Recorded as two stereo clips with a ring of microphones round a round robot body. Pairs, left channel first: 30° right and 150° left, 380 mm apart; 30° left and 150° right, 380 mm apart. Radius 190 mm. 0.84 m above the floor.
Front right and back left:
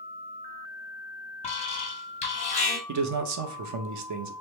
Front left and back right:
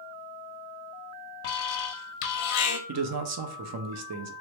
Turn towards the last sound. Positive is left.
turn(degrees=175)